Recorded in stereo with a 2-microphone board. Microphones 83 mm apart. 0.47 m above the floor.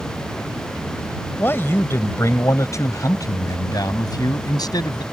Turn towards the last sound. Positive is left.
turn(degrees=60)  # may be behind; listen again after turning